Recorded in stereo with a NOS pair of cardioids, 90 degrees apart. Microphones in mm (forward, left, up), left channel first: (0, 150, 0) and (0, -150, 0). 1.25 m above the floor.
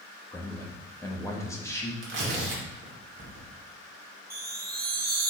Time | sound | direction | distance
0.3 | a man speaking | 10° left | 1.6 m
2.0 | tearing paper | 45° right | 2 m
4.3 | a chime | 35° right | 1.4 m